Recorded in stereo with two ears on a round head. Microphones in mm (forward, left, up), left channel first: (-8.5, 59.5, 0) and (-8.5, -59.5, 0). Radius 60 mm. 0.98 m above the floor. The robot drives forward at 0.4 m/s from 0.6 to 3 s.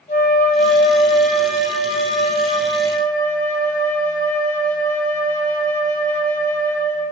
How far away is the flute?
About 2 m.